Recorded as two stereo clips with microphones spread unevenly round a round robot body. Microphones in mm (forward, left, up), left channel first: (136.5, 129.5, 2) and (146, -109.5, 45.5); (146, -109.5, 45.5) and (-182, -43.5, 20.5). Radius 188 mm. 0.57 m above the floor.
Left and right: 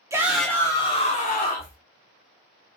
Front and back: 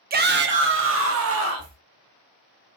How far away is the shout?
About 1.0 m.